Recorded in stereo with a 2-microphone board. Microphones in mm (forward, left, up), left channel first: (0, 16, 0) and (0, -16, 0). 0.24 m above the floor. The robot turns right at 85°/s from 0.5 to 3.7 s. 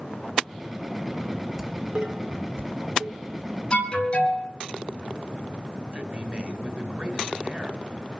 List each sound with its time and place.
1.6 s dishes clattering: 5° right (ahead or behind), 1.5 m; by 3.5 s 10° right (ahead or behind), 1.5 m
3.7 s an alarm: 35° left (ahead or behind), 6 m
5.9 s a man speaking: 45° right (ahead or behind), 2 m